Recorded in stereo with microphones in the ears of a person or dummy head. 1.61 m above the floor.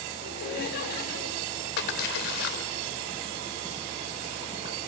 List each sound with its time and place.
0.2 s laughter: 60° left (ahead or behind), 6 m
1.8 s a splash: 60° left (ahead or behind), 2.5 m